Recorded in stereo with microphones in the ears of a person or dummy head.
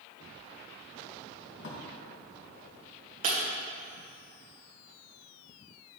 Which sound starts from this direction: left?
A drawer, at 1.6 s.